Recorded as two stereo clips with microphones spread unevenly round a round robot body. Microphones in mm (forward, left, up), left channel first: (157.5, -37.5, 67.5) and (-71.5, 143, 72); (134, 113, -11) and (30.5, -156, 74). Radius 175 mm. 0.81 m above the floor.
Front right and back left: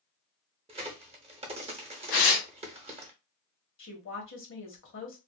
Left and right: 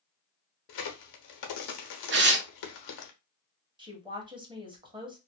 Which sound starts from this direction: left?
A crack, at 0.7 s.